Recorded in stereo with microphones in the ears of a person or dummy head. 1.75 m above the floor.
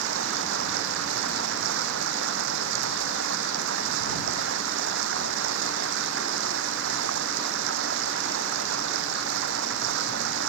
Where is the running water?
65° right (ahead or behind).